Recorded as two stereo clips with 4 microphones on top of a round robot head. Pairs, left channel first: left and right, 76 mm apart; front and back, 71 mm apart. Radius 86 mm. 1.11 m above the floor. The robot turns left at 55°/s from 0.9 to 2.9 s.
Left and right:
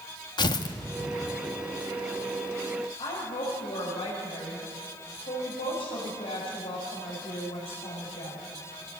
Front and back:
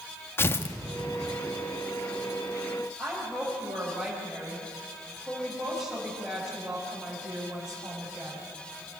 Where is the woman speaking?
90° left, 5.5 m.